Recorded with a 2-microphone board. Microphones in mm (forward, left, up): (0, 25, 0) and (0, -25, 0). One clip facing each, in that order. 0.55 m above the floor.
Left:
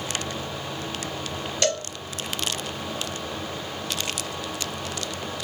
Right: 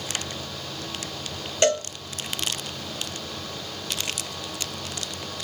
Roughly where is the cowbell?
Right.